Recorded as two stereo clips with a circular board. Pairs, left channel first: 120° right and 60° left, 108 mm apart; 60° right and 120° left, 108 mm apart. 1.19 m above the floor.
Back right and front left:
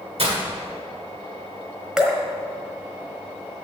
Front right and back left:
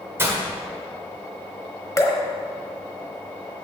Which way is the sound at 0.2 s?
55° left.